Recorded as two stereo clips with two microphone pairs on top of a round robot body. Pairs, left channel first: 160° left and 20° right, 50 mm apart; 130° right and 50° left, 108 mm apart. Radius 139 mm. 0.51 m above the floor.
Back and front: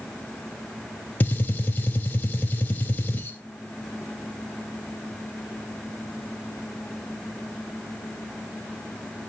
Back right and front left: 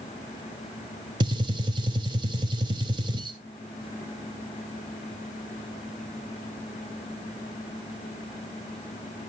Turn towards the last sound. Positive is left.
turn(degrees=100)